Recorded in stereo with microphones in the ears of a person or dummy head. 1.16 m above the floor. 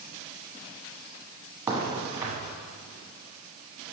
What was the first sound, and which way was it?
A crack, 10° right (ahead or behind).